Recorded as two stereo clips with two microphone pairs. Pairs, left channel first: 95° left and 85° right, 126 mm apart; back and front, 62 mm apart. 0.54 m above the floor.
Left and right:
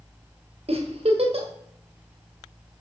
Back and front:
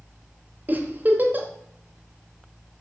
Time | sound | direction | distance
0.7 | a giggle | 55° right | 1.4 m